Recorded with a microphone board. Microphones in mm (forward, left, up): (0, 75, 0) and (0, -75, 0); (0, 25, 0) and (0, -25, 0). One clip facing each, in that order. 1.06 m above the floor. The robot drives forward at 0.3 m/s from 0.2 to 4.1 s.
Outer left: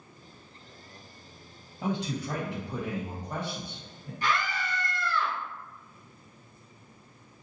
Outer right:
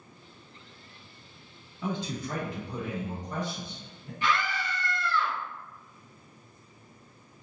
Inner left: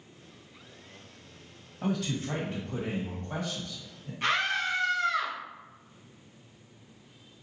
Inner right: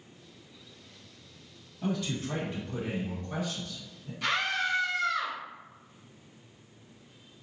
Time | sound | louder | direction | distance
1.8 | a man speaking | outer left 2 dB, inner left 1 dB | 75° left (ahead or behind) | 1.4 m
4.2 | a scream | outer right 1 dB, inner left 1 dB | 40° left (ahead or behind) | 1.1 m